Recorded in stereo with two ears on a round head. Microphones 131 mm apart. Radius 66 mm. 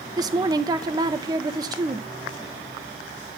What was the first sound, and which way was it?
A woman speaking, 25° right (ahead or behind).